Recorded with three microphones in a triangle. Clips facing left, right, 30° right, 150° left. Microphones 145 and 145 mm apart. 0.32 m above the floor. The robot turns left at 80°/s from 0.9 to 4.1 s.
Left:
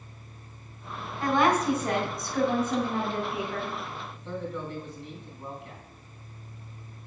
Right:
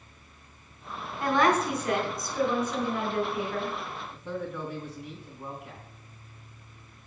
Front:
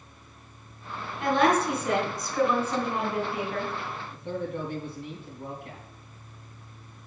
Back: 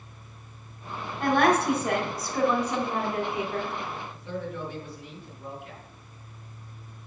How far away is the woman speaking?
About 3 m.